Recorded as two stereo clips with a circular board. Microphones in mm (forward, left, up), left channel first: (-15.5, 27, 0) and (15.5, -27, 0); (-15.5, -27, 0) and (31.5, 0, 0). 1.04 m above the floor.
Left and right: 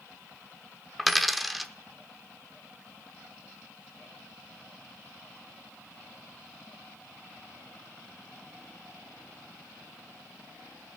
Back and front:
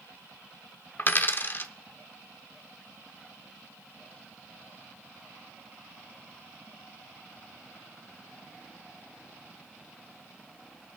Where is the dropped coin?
150° right, 0.7 m.